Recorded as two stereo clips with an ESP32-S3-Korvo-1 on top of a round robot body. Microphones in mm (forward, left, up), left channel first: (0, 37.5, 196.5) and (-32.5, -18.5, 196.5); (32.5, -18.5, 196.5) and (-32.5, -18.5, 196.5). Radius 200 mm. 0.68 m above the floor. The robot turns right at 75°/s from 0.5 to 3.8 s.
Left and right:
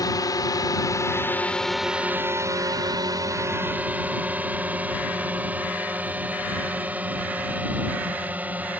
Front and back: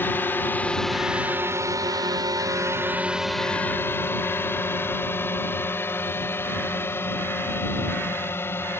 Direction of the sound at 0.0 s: 55° left.